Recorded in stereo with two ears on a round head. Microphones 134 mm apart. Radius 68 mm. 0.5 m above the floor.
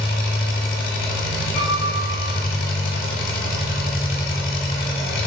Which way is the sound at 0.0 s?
65° left (ahead or behind).